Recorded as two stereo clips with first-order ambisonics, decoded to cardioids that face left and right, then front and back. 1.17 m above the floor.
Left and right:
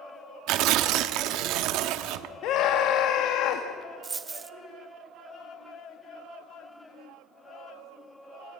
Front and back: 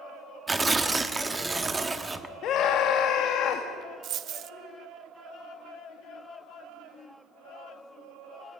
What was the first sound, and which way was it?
Tearing paper, 105° right.